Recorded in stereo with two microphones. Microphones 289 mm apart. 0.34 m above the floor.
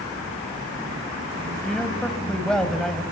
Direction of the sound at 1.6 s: Centre (ahead or behind).